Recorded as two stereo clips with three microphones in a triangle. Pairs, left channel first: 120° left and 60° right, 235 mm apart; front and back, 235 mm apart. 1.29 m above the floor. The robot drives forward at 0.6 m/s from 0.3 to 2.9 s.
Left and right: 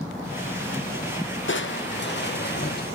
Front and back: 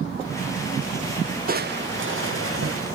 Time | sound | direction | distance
1.5 | crushing | 140° left | 0.6 m